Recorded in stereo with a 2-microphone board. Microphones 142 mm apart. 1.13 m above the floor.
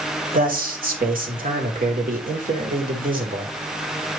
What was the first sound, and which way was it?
A man speaking, 75° right (ahead or behind).